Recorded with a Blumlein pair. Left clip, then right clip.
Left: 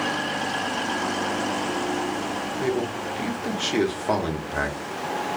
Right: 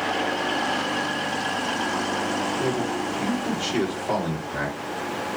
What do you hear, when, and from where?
2.6 s a man speaking: 70° left, 1.0 m